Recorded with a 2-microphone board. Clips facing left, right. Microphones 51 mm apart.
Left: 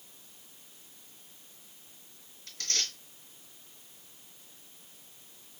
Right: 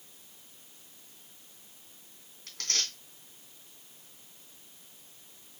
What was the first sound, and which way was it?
Tearing paper, 85° right.